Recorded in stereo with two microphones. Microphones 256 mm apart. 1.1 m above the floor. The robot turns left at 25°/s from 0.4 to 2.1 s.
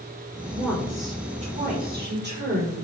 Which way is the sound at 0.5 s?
5° right.